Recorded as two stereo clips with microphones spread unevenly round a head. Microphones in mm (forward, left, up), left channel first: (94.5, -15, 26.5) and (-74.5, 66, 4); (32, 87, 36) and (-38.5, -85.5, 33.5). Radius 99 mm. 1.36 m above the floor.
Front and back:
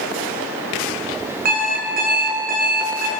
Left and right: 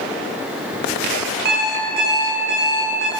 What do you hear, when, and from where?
1.4 s an alarm clock: 155° right, 6 m